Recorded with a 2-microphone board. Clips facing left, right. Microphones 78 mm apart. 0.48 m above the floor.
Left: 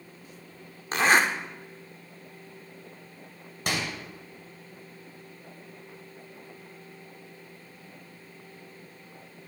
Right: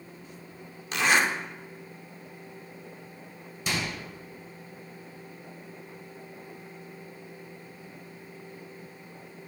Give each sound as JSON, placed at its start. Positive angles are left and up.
{"t": 0.9, "sound": "a zipper", "side_deg": 40, "distance_m": 0.8}
{"t": 3.7, "sound": "a microwave", "side_deg": 60, "distance_m": 1.7}